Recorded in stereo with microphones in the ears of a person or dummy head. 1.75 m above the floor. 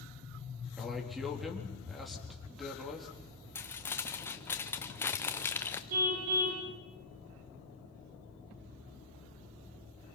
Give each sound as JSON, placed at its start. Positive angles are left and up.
{"t": 0.8, "sound": "a man speaking", "side_deg": 0, "distance_m": 4.0}
{"t": 3.5, "sound": "crumpling", "side_deg": 10, "distance_m": 0.6}
{"t": 5.9, "sound": "a car horn", "side_deg": -45, "distance_m": 3.5}